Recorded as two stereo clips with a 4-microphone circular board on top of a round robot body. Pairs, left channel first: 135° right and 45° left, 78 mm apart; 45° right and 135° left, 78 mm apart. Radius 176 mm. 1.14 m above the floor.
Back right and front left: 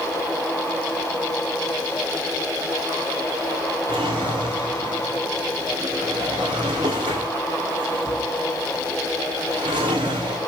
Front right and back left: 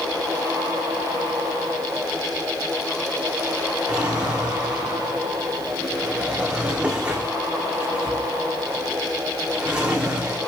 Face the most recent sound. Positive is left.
turn(degrees=60)